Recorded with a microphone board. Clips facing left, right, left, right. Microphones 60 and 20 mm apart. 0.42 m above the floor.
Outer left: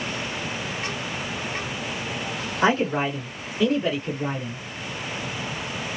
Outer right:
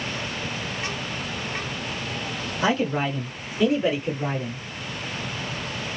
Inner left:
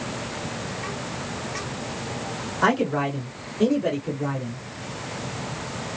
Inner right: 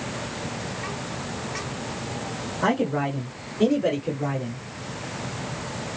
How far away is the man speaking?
About 1.8 m.